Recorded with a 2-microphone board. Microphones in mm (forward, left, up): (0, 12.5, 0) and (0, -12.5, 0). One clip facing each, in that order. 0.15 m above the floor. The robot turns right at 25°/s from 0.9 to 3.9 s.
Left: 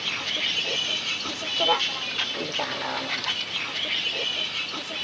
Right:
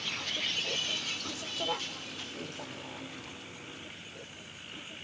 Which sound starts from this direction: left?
A vehicle, at 0.0 s.